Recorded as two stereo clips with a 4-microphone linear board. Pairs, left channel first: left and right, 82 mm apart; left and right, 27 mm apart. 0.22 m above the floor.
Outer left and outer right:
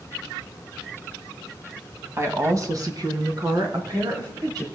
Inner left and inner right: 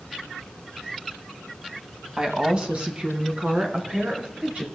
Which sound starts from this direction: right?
A woman speaking, at 2.2 s.